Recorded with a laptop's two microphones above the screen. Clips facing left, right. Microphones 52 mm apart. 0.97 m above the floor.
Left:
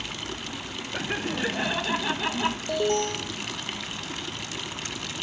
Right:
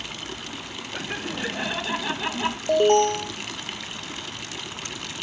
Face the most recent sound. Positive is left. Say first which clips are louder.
# right 10 dB
turn(degrees=-45)  # may be behind; listen again after turning